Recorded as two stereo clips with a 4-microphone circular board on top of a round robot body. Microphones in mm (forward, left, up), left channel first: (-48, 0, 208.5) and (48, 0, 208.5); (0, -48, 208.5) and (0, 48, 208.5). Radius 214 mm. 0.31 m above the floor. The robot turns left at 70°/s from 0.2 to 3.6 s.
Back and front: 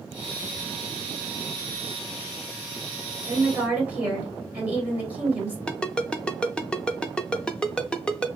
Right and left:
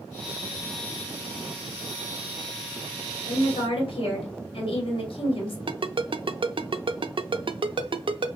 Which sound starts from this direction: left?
A ringtone, at 5.7 s.